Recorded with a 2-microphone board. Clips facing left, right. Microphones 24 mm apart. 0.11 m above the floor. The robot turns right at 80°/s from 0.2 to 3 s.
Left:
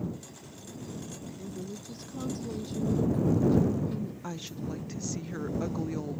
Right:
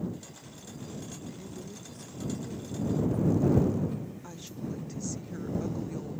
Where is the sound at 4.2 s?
30° left (ahead or behind).